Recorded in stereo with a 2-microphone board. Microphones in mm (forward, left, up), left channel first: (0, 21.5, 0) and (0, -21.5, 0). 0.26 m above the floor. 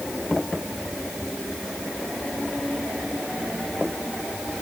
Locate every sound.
Only background noise.